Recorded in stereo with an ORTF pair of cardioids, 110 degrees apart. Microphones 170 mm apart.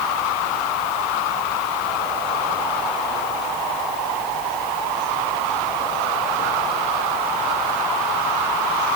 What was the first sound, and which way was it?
Only background noise.